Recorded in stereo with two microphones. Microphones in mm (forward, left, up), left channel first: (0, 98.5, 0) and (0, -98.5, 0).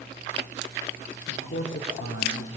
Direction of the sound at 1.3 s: 70° left (ahead or behind).